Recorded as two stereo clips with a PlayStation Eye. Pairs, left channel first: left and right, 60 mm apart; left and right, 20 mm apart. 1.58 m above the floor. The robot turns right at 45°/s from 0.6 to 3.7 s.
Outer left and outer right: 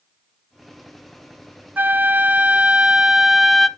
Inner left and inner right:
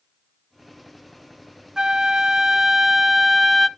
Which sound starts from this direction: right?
A flute, at 1.8 s.